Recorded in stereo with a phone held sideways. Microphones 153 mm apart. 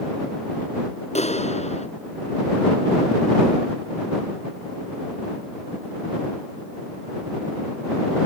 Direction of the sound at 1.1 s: 45° left (ahead or behind).